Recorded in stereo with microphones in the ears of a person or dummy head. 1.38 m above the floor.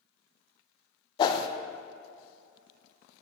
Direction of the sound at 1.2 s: 30° left (ahead or behind).